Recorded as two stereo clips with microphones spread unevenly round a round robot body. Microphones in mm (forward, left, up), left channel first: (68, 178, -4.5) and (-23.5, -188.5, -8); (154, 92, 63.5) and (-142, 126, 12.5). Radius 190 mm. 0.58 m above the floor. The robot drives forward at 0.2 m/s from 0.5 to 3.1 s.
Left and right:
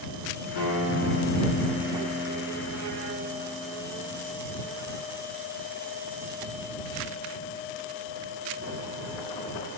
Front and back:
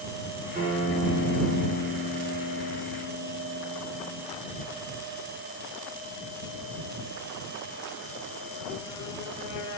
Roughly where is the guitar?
Behind left.